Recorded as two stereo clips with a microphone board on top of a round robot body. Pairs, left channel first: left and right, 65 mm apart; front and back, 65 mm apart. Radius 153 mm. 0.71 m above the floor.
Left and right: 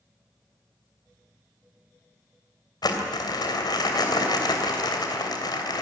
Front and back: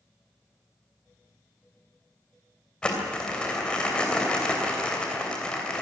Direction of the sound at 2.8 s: 75° left.